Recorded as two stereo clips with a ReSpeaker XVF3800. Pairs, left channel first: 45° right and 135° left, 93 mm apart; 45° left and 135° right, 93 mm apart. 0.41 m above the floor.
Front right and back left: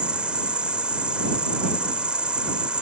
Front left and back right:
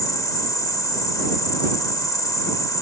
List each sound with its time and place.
0.0 s an insect: 60° left